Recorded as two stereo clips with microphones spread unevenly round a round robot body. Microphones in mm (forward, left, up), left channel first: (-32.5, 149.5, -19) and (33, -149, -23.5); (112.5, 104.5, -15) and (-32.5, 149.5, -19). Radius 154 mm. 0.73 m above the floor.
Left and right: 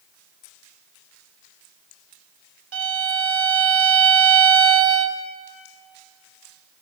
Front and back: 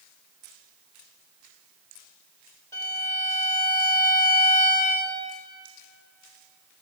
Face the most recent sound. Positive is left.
turn(degrees=-100)